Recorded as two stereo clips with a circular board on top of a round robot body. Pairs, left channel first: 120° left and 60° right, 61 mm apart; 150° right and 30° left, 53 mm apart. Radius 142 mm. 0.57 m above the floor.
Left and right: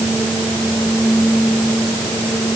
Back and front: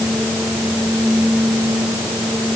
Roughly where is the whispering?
I don't hear whispering.